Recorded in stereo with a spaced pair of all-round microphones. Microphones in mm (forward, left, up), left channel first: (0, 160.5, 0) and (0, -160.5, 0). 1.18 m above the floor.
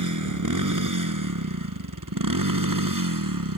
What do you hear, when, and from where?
0.0 s a motorcycle: 65° right (ahead or behind); by 3.6 s 85° right